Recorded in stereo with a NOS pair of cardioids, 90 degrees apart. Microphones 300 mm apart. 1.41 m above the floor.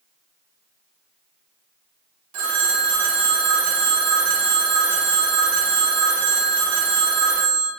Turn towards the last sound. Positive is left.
turn(degrees=-65)